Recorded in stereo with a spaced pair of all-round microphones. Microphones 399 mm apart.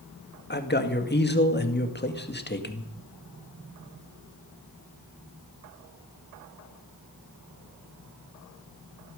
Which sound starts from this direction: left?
A man speaking, at 0.5 s.